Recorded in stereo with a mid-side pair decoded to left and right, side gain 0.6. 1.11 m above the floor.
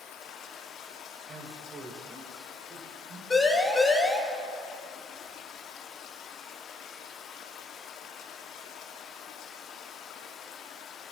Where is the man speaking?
40° right, 4 m.